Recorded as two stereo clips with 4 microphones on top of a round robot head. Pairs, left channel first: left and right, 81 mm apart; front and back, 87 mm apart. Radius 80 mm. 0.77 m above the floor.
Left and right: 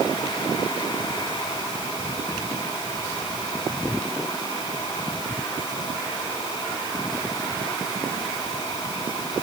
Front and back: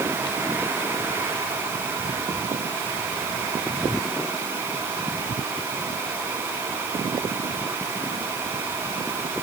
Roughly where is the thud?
I don't hear a thud.